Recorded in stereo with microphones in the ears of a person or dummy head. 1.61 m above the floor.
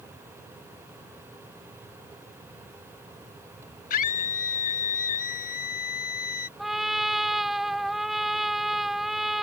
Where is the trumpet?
Centre (ahead or behind).